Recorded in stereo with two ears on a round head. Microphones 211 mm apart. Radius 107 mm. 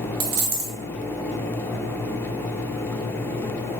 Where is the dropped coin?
60° right (ahead or behind), 0.8 m.